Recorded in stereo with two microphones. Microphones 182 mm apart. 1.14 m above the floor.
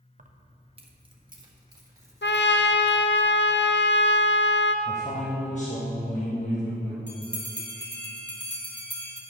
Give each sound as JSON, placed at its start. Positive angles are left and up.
{"t": 0.2, "sound": "keys jangling", "side_deg": -50, "distance_m": 0.6}
{"t": 2.2, "sound": "a trumpet", "side_deg": 80, "distance_m": 0.5}
{"t": 4.8, "sound": "a man speaking", "side_deg": 40, "distance_m": 1.4}
{"t": 7.1, "sound": "a bell", "side_deg": 70, "distance_m": 1.8}